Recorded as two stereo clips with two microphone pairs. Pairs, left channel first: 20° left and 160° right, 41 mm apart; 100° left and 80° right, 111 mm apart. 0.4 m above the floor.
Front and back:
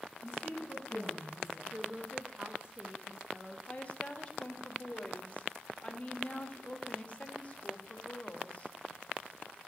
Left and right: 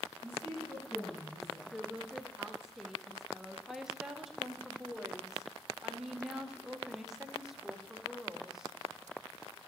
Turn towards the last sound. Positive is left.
turn(degrees=5)